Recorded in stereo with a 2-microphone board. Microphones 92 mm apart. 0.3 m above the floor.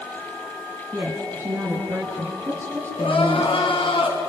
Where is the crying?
70° left (ahead or behind), 4.5 m.